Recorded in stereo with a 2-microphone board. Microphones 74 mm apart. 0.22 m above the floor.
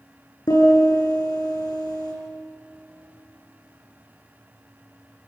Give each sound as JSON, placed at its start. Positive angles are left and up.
{"t": 0.5, "sound": "a piano", "side_deg": 55, "distance_m": 9.5}